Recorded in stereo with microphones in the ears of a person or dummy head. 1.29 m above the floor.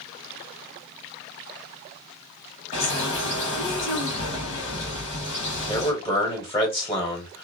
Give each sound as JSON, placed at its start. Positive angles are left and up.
{"t": 2.7, "sound": "a bird", "side_deg": 40, "distance_m": 1.6}
{"t": 5.7, "sound": "a man speaking", "side_deg": 15, "distance_m": 0.9}